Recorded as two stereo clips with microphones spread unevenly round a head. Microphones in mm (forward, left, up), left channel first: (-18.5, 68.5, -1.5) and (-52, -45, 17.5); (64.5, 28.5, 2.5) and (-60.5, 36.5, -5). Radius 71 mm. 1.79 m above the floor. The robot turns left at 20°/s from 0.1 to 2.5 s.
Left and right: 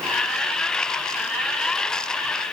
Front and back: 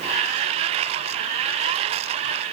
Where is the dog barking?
I don't hear a dog barking.